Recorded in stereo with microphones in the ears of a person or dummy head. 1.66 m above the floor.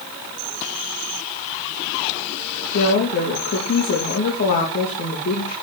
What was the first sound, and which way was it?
A woman speaking, 45° left (ahead or behind).